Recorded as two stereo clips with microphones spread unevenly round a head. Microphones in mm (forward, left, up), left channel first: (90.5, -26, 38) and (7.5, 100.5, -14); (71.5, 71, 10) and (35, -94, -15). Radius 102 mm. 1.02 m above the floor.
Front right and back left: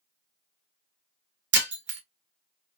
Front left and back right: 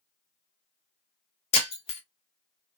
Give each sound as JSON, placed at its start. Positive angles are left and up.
{"t": 1.5, "sound": "breaking glass", "azimuth_deg": 140, "distance_m": 1.1}